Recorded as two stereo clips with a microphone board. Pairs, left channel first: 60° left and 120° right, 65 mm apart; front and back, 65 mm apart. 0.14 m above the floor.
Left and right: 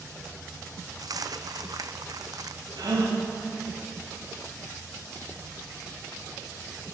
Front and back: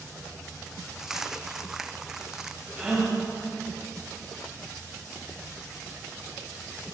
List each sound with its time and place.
1.0 s a dropped coin: 95° right, 1.0 m
2.8 s a gasp: 100° right, 9.5 m